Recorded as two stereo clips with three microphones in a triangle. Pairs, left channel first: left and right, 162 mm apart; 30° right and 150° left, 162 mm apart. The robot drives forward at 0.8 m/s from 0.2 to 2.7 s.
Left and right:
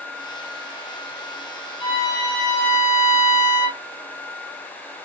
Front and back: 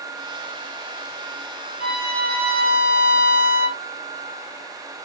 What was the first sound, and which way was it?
A violin, 150° left.